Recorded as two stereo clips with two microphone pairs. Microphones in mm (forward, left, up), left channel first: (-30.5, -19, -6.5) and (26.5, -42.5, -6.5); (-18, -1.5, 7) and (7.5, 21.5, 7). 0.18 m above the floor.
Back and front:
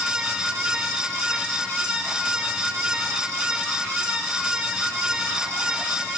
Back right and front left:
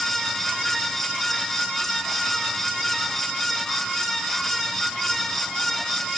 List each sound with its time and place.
Only background noise.